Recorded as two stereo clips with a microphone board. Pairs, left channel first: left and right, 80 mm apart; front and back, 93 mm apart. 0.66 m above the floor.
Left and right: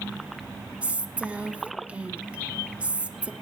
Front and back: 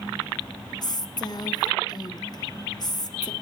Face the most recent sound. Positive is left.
turn(degrees=-20)